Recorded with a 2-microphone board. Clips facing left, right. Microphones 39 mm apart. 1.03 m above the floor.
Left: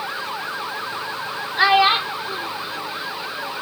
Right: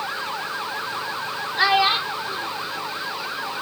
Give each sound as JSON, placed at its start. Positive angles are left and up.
{"t": 1.6, "sound": "a child speaking", "side_deg": 10}